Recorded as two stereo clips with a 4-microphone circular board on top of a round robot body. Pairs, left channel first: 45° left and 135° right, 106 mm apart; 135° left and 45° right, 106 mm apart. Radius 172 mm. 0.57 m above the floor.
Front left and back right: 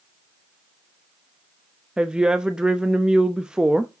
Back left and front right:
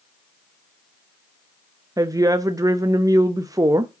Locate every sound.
2.0 s a woman speaking: 60° right, 0.8 m